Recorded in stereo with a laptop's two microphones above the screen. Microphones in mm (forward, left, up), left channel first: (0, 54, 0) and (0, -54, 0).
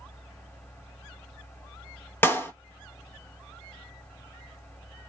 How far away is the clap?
About 0.8 m.